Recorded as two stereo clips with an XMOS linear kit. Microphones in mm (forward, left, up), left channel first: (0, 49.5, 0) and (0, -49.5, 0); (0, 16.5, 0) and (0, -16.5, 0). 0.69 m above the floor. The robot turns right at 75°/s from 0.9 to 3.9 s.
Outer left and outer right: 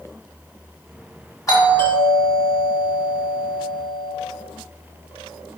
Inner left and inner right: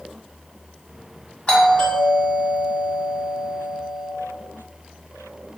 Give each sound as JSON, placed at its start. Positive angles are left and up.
{"t": 1.5, "sound": "a doorbell", "azimuth_deg": 140, "distance_m": 1.8}